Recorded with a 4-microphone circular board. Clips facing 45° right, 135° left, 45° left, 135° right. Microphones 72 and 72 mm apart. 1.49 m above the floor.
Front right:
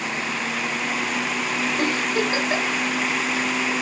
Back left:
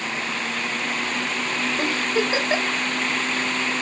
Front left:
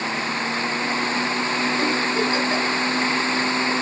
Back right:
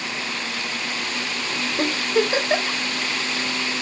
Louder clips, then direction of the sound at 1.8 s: Even, even; 160° right.